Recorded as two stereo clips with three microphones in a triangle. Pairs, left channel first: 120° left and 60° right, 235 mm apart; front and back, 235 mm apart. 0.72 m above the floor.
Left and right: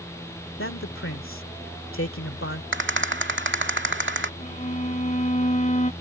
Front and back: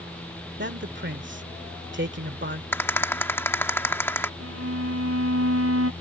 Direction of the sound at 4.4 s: Straight behind.